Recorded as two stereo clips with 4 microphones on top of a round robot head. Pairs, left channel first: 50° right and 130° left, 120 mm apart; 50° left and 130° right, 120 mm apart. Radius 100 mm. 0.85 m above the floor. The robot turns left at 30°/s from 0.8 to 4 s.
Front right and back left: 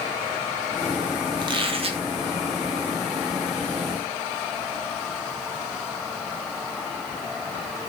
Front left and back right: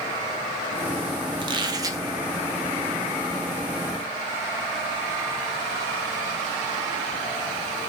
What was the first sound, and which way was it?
A squeak, 175° right.